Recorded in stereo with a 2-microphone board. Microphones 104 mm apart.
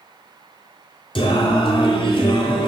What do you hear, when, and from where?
1.1 s singing: 55° left (ahead or behind), 0.8 m